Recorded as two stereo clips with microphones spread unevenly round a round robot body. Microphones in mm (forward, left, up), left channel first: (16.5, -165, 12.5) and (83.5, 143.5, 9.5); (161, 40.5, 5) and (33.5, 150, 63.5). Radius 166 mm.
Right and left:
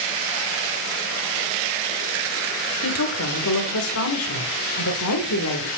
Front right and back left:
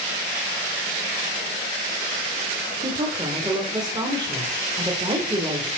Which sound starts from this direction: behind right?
A woman speaking, at 2.8 s.